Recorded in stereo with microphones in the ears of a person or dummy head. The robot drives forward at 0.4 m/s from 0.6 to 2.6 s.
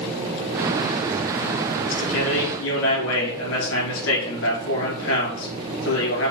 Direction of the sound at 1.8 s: 80° left.